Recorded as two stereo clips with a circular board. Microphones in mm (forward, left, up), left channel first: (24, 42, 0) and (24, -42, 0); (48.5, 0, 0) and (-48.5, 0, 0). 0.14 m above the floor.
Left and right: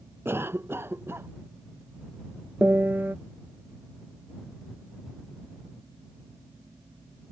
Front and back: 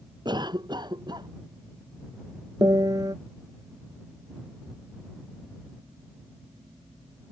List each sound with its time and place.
0.2 s a cough: 150° right
2.6 s a piano: 150° right